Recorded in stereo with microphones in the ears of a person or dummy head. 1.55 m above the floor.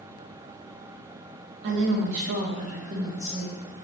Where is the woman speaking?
55° right (ahead or behind), 0.6 m; by 3.6 s 20° right (ahead or behind), 1.1 m.